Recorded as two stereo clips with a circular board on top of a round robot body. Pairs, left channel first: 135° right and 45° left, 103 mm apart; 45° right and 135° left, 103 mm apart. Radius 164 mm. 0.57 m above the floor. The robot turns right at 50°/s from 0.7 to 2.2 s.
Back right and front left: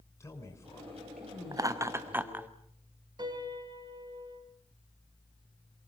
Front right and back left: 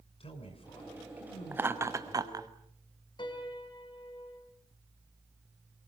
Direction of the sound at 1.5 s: 75° left.